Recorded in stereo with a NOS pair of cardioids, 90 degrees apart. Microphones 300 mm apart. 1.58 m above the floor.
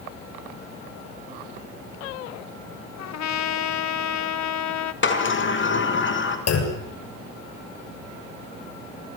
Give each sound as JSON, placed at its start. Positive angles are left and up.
{"t": 3.0, "sound": "a trumpet", "azimuth_deg": 65, "distance_m": 1.8}
{"t": 5.0, "sound": "a sliding door", "azimuth_deg": 40, "distance_m": 4.5}
{"t": 6.5, "sound": "a clunk", "azimuth_deg": 55, "distance_m": 6.5}